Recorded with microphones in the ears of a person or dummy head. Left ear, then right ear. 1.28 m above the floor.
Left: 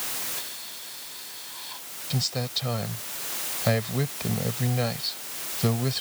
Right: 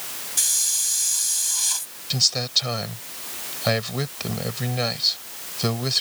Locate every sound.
0.4 s a hiss: 85° right
2.1 s a man speaking: 30° right (ahead or behind)